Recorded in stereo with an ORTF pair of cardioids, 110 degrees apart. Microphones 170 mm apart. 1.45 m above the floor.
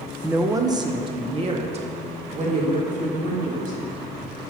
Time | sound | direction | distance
0.2 | a woman speaking | 10° right | 0.7 m